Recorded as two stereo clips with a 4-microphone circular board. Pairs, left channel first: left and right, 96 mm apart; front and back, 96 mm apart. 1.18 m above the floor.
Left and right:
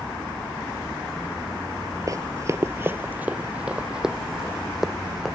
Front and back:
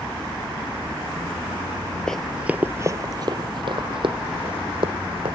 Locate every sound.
2.1 s running footsteps: 80° right; by 5.4 s straight behind